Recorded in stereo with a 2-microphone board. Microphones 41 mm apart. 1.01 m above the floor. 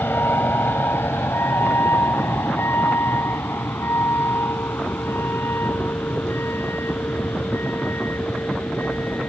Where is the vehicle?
65° left (ahead or behind).